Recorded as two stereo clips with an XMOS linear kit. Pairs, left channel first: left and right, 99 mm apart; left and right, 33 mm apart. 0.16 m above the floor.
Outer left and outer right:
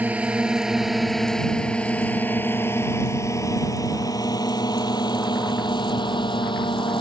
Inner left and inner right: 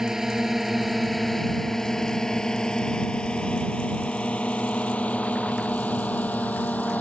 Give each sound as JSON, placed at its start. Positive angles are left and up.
{"t": 0.0, "sound": "a drone", "side_deg": -15}